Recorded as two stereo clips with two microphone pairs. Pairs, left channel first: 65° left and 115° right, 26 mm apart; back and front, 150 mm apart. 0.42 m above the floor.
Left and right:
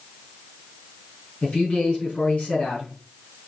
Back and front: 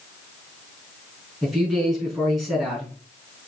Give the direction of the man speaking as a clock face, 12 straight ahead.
9 o'clock.